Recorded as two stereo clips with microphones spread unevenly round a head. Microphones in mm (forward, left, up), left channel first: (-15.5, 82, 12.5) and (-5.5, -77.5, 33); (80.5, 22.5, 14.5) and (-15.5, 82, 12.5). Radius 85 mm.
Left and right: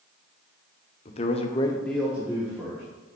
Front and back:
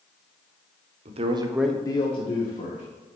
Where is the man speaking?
150° left, 0.8 m; by 2.8 s 15° right, 1.5 m.